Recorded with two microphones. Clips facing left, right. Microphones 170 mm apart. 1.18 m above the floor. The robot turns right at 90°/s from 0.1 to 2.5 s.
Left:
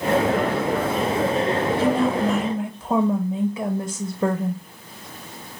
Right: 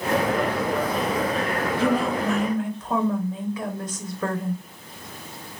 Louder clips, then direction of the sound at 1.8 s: Left 1 dB; 25° right.